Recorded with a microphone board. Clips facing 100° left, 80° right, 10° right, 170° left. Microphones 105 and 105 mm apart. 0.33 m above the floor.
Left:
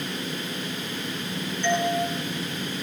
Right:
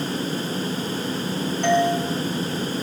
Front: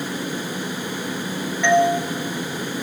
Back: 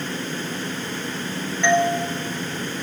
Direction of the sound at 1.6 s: 95° right.